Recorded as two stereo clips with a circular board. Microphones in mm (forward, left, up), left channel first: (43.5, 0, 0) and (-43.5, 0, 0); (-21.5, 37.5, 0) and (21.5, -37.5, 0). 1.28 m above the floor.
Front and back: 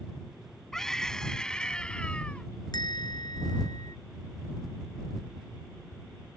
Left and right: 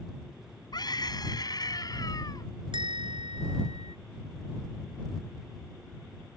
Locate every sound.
0.7 s a scream: 85° left; by 2.5 s 75° left
2.7 s a bell: 40° right